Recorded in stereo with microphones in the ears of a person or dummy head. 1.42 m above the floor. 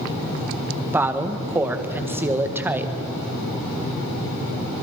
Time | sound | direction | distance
0.9 | a woman speaking | 15° right (ahead or behind) | 1.6 m